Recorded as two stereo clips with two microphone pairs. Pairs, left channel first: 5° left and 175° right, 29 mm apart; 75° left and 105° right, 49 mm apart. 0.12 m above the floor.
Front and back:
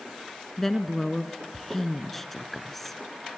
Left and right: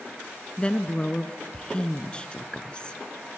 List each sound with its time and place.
0.6 s a woman speaking: 65° left, 1.1 m